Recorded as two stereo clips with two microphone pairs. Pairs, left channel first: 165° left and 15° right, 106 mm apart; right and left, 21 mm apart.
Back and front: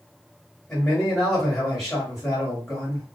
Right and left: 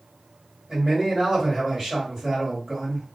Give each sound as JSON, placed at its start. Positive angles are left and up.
{"t": 0.7, "sound": "a man speaking", "azimuth_deg": 80, "distance_m": 1.8}